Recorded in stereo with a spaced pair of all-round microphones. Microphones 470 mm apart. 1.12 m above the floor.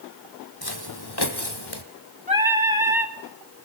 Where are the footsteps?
50° left (ahead or behind), 1.9 m; by 1.8 s 60° left (ahead or behind), 2 m.